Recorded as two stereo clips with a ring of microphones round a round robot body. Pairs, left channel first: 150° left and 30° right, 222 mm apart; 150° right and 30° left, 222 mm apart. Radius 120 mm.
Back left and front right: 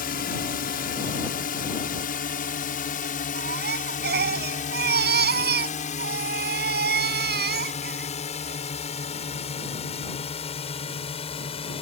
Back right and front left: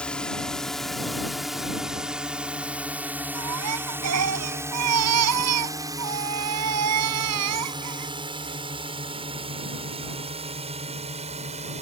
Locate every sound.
0.0 s a drone: 125° left; by 11.8 s 90° left
3.4 s a baby crying: 15° left